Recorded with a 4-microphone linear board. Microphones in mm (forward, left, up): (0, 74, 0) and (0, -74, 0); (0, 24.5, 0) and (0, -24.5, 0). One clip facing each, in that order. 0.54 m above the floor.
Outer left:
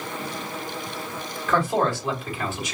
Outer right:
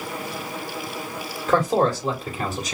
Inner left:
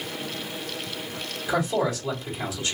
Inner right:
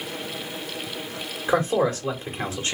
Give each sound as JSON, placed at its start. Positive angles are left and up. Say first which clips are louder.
{"t": 1.5, "sound": "a man speaking", "louder": "outer right 3 dB, inner right 3 dB", "side_deg": -40, "distance_m": 1.8}